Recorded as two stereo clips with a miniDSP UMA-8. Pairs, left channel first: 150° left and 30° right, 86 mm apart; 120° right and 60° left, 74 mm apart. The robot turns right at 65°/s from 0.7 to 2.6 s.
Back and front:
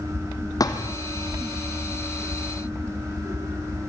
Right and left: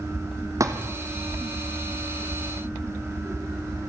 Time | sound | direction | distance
0.6 | a thud | 105° left | 2 m